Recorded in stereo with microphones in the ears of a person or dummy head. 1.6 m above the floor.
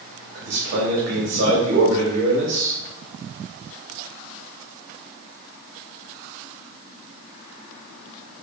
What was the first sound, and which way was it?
A man speaking, 85° right.